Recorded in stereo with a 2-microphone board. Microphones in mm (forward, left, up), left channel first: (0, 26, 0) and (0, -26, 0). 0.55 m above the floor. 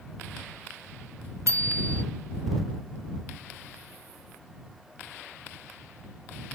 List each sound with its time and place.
1.5 s a bicycle bell: 65° right (ahead or behind)